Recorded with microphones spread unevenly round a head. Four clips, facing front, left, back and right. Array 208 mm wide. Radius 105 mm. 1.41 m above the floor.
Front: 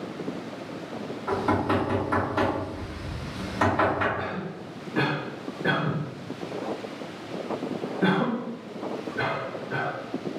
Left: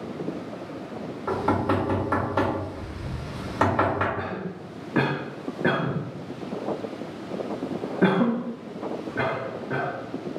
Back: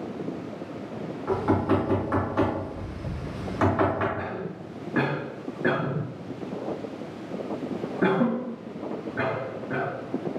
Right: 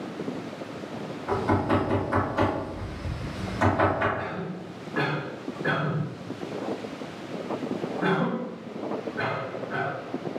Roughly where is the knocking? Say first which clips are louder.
Even, back 1 dB; left.